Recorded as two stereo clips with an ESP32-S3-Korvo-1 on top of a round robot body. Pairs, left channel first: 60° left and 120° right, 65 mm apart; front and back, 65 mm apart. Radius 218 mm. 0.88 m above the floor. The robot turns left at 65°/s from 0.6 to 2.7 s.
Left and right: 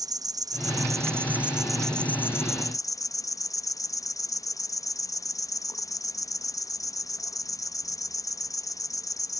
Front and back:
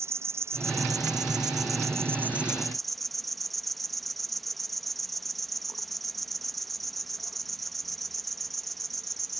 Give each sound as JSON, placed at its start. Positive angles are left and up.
{"t": 0.0, "sound": "an insect", "azimuth_deg": -135}